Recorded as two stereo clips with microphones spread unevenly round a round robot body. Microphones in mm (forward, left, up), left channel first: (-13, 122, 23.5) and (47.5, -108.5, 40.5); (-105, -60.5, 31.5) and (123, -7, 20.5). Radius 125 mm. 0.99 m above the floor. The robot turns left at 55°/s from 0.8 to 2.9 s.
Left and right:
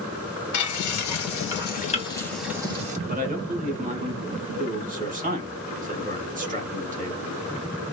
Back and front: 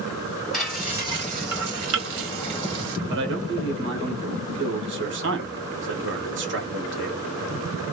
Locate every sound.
0.5 s frying: 105° left, 2 m; by 3.0 s 15° right, 2 m
3.1 s a man speaking: 20° right, 1.5 m